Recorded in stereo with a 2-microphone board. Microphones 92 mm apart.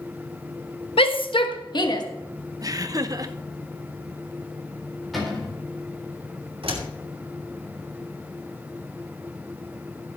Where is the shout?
80° left, 1.1 m; by 2.0 s 50° left (ahead or behind), 1.4 m.